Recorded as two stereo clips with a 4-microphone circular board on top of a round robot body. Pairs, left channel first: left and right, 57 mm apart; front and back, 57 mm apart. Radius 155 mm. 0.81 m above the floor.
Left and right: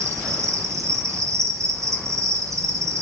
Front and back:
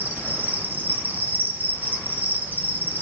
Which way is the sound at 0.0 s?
120° right.